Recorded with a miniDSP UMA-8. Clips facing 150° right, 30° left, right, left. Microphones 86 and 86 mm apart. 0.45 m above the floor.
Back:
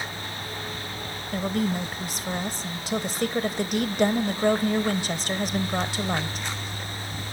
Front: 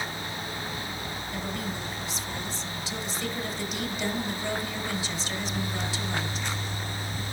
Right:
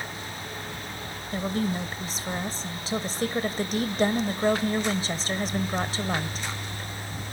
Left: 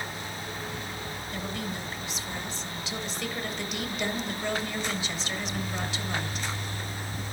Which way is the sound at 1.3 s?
130° right.